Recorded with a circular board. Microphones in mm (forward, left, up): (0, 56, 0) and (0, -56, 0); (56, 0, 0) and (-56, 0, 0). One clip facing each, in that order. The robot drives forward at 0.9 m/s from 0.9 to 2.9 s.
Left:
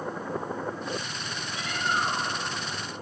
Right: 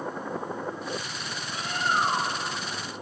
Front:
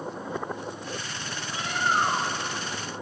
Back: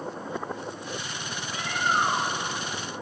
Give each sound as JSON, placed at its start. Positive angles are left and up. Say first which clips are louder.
{"t": 1.5, "sound": "a bird", "louder": "right 2 dB, even", "azimuth_deg": -60, "distance_m": 1.4}